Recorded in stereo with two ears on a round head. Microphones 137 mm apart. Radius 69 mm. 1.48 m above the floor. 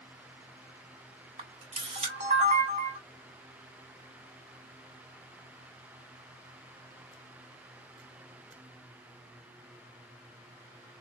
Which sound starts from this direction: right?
A camera shutter, at 1.4 s.